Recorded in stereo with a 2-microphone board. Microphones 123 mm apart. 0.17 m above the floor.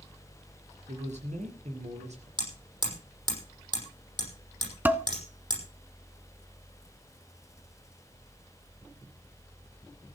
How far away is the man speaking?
About 3 m.